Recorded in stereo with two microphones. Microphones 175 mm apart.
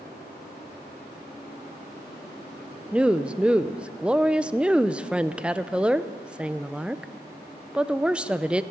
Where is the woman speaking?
5° right (ahead or behind), 0.5 m.